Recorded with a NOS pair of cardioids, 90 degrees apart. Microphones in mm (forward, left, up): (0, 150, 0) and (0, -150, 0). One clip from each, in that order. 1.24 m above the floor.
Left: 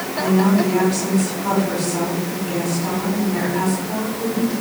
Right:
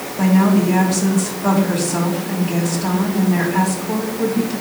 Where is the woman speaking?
55° right, 3.5 m.